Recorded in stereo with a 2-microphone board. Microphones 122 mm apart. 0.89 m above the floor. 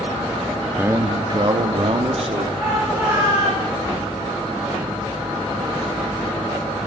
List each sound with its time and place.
0.8 s a man speaking: 15° right (ahead or behind), 0.5 m; by 2.5 s 55° right (ahead or behind), 1.7 m
2.6 s a shout: 5° right (ahead or behind), 9 m